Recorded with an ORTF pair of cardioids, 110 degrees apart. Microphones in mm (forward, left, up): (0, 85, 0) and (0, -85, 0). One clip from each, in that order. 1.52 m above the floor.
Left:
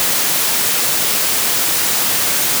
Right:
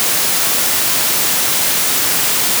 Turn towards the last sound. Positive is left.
No sound to turn to.